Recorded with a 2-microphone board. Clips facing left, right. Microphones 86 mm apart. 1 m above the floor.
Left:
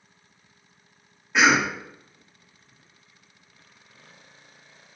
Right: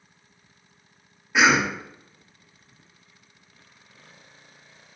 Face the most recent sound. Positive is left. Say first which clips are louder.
# even
turn(degrees=-5)  # may be behind; listen again after turning